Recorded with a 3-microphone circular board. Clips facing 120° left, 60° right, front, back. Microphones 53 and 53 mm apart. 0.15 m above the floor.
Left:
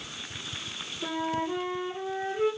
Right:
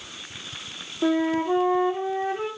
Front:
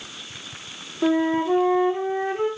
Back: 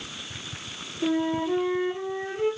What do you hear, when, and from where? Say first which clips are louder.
1.0 s a flute: right 8 dB, front 5 dB; 50° right, 7 m